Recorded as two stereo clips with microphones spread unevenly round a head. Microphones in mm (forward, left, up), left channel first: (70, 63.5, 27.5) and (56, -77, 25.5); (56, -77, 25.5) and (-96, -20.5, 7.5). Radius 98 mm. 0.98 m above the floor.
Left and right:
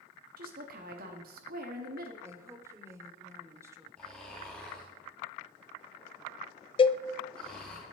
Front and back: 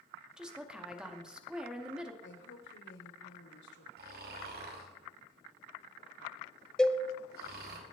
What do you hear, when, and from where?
0.4 s a woman speaking: 115° right, 2 m
2.2 s a woman speaking: 25° right, 3 m
4.0 s snoring: 170° left, 2.5 m
6.8 s a cowbell: 70° left, 0.5 m